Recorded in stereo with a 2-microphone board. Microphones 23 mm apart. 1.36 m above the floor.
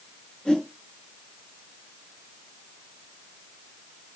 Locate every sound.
0.5 s a whoosh: 40° left (ahead or behind), 5 m